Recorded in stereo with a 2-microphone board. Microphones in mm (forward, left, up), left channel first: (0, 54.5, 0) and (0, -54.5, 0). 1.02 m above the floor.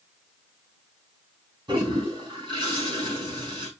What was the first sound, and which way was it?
A toilet flushing, 45° right (ahead or behind).